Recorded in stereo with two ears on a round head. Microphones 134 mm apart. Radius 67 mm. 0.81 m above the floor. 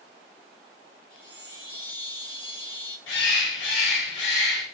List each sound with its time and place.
1.1 s a chime: 65° left (ahead or behind), 3.5 m
3.1 s a bird: 80° left, 1.4 m